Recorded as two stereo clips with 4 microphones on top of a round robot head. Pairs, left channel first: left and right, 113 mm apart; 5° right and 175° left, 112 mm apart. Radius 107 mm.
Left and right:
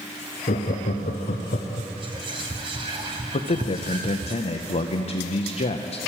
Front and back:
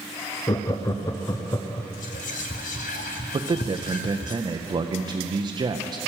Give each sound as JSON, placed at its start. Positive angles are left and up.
{"t": 0.5, "sound": "laughter", "azimuth_deg": 60, "distance_m": 0.7}
{"t": 2.0, "sound": "whispering", "azimuth_deg": -30, "distance_m": 0.6}
{"t": 3.3, "sound": "a man speaking", "azimuth_deg": 120, "distance_m": 0.7}